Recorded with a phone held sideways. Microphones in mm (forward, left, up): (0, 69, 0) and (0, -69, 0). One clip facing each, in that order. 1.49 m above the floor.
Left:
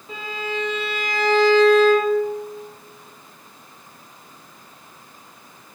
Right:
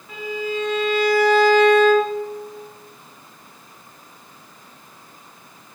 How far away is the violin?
About 0.7 m.